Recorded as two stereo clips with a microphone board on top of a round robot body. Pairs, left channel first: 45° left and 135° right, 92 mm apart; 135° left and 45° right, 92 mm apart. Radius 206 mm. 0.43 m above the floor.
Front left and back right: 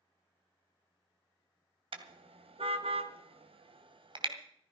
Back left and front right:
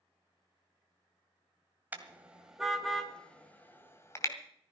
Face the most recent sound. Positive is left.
turn(degrees=-165)